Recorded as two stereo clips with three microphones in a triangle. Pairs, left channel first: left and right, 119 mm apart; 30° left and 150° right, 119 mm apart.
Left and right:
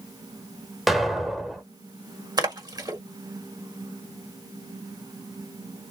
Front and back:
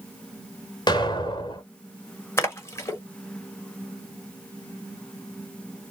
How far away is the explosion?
About 1.4 m.